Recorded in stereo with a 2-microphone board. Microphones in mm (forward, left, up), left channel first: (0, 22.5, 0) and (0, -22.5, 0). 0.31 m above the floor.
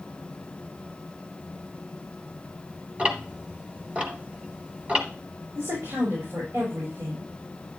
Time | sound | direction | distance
3.0 | ticking | 25° right (ahead or behind) | 1.4 m
5.5 | a woman speaking | 60° right (ahead or behind) | 5.5 m